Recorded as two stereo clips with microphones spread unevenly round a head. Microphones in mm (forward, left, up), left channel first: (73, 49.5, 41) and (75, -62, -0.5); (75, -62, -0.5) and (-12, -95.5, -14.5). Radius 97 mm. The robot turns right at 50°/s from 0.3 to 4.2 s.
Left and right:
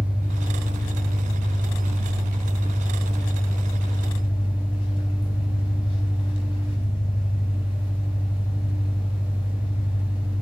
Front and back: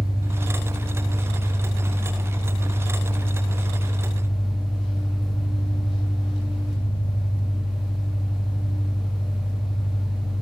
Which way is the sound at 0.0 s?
140° right.